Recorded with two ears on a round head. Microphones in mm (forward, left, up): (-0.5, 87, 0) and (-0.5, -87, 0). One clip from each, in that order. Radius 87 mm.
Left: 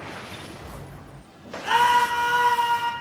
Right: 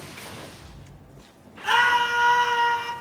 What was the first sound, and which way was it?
A scream, 25° right (ahead or behind).